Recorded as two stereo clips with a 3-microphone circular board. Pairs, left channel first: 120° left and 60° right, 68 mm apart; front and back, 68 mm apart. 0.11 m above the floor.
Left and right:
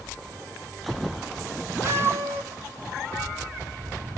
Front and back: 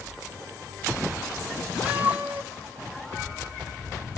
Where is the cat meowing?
110° right, 1.0 m; by 4.2 s 125° right, 2.5 m.